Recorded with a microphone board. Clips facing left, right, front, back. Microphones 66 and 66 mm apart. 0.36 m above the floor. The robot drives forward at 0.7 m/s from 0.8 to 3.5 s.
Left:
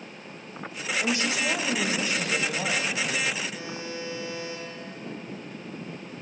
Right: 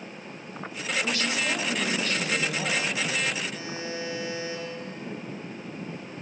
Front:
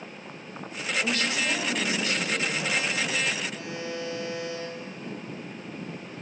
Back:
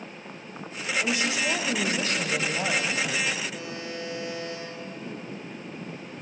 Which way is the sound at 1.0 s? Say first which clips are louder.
Left 2 dB, back 1 dB; 110° left.